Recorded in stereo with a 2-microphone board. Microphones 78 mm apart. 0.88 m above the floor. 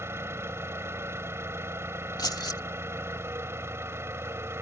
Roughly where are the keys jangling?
Left.